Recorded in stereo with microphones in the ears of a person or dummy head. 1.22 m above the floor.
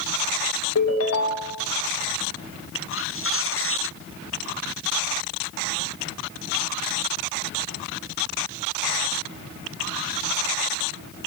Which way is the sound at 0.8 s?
80° left.